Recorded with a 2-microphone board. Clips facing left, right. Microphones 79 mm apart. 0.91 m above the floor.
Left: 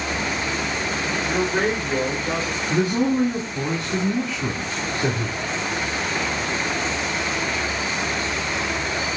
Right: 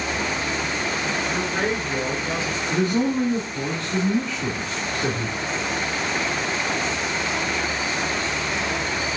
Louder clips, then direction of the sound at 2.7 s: Left 1 dB; 15° left (ahead or behind).